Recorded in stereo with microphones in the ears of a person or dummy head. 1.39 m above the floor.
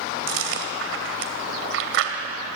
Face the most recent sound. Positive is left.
turn(degrees=-70)  # may be behind; listen again after turning